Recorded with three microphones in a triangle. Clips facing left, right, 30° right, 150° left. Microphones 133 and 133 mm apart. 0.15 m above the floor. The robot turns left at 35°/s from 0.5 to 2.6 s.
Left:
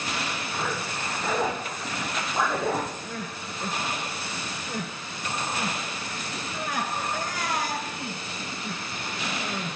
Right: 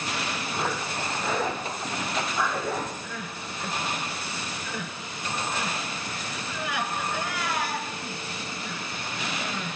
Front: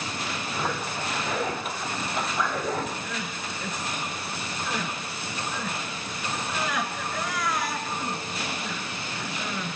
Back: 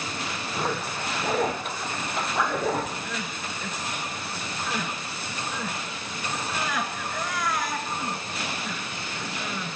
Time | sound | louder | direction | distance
0.5 | a zipper | right 2 dB, back 2 dB | 165° right | 10 m
3.0 | crying | left 1 dB, even | 60° left | 1.8 m